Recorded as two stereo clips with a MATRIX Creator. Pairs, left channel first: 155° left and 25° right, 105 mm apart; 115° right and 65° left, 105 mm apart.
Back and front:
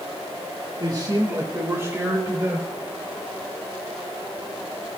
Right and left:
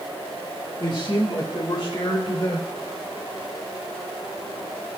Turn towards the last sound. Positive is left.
turn(degrees=-95)